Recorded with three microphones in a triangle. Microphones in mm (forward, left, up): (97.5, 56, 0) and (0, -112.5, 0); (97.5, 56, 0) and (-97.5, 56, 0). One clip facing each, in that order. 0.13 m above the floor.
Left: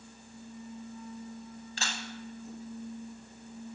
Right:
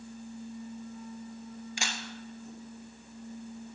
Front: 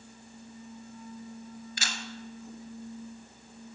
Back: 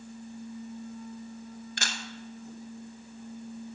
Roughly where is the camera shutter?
Behind.